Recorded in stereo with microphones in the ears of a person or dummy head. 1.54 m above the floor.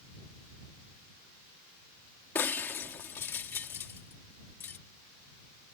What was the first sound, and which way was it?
Breaking glass, 15° left (ahead or behind).